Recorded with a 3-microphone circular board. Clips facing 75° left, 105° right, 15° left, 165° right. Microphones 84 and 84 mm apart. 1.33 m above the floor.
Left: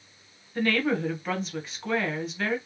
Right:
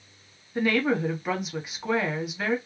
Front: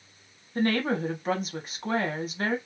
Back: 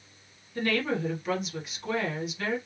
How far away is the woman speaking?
About 1.0 m.